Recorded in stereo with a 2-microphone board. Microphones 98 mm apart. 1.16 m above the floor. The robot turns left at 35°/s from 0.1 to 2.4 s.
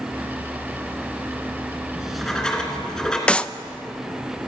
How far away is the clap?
About 0.6 m.